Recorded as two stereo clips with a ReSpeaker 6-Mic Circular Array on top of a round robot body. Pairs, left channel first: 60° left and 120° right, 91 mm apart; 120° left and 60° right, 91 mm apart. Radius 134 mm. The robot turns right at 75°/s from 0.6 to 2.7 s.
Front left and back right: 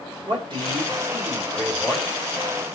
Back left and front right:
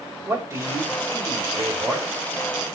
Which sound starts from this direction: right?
A man speaking, at 0.3 s.